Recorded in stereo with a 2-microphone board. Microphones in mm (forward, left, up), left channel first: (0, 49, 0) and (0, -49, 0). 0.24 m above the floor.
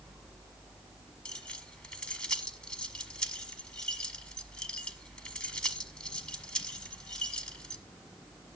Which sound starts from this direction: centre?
Keys jangling, at 1.2 s.